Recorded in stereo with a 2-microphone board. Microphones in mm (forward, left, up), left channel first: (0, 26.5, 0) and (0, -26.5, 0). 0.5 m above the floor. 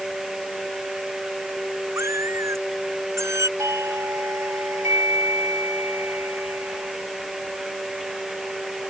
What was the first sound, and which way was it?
A cat meowing, 60° right (ahead or behind).